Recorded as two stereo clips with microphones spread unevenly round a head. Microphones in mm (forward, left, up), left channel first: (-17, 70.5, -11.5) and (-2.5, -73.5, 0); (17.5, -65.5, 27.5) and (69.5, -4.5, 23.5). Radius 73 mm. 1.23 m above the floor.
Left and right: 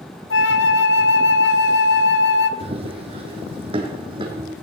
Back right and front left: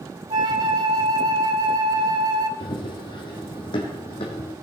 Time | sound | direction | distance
0.3 | a flute | 100° left | 0.9 m
2.6 | running footsteps | 125° right | 2.5 m